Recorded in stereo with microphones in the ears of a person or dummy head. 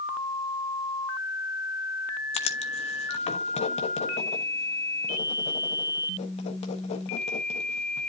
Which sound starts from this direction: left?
Writing, at 2.3 s.